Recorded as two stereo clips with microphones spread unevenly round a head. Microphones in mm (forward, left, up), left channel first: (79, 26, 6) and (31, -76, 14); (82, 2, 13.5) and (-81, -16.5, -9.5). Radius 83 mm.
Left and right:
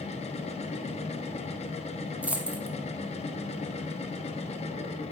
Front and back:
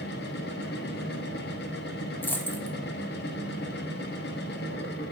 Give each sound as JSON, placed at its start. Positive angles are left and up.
{"t": 0.0, "sound": "a machine running", "azimuth_deg": 40, "distance_m": 1.0}
{"t": 2.2, "sound": "a dropped coin", "azimuth_deg": -50, "distance_m": 0.9}